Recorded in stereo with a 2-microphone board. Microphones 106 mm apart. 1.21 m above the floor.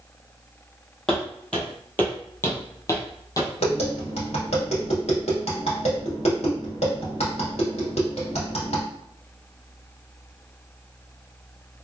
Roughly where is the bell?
I don't hear a bell.